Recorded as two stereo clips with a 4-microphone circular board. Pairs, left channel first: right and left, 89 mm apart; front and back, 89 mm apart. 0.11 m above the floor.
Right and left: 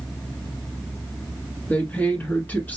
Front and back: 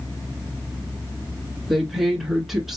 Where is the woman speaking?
95° right, 1.3 m.